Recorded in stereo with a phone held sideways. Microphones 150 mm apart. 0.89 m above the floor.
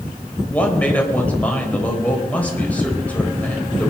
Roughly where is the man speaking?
Centre.